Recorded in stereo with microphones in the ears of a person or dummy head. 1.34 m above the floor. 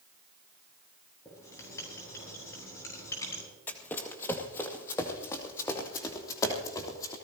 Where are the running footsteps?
10° left (ahead or behind), 1.9 m; by 7.1 s 20° left (ahead or behind), 3.5 m.